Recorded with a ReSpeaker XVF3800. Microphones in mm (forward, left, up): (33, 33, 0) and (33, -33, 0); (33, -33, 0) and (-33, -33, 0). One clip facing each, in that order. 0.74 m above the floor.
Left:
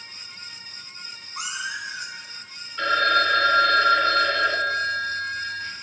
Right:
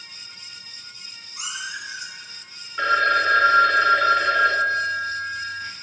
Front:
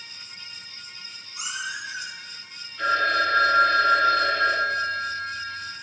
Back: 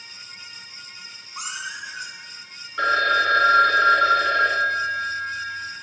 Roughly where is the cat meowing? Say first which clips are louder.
Left 2 dB, even; behind left.